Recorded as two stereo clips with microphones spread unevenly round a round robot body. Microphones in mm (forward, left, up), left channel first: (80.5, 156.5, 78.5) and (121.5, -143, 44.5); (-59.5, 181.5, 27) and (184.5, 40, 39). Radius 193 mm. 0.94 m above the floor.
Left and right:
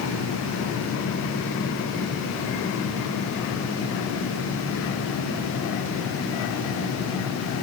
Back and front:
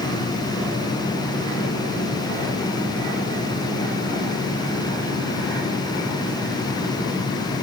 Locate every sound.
Only background noise.